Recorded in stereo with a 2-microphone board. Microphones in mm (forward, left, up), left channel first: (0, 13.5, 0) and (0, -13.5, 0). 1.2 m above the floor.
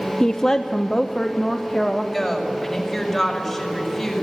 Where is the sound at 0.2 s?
20° left (ahead or behind), 0.7 m; by 2.0 s 5° left (ahead or behind), 1.6 m.